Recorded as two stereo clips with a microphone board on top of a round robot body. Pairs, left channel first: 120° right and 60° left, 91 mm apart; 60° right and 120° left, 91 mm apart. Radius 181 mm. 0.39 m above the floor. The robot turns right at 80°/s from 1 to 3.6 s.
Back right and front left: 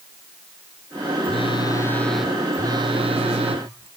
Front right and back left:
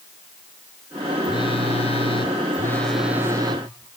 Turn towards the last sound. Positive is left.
turn(degrees=85)